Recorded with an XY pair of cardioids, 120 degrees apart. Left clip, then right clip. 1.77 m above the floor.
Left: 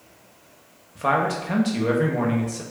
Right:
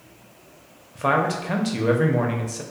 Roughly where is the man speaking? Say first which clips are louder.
Even; ahead.